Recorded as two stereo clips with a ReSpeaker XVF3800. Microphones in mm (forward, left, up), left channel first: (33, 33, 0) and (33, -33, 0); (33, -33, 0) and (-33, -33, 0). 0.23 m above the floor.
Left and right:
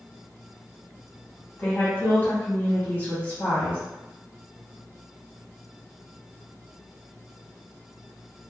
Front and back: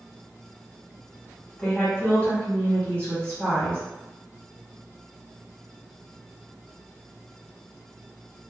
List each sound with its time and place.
1.6 s a woman speaking: 55° left, 1.5 m